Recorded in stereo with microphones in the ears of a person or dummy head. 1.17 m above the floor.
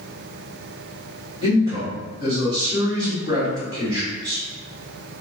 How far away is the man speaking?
About 1.4 m.